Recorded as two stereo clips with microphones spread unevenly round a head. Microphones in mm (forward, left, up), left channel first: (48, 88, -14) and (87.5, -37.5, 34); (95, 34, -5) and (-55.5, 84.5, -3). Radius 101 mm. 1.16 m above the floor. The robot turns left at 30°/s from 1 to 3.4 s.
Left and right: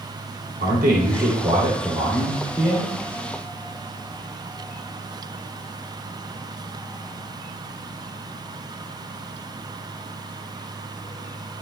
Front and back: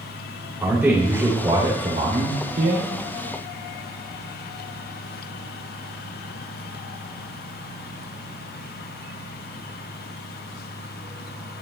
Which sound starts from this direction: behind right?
A man speaking, at 0.6 s.